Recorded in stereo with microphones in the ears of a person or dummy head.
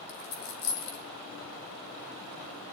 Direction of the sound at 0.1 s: 70° left (ahead or behind).